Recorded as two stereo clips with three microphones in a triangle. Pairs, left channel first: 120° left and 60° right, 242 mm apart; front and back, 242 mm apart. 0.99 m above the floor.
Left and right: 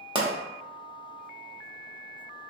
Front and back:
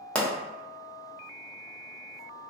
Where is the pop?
75° right, 0.8 m.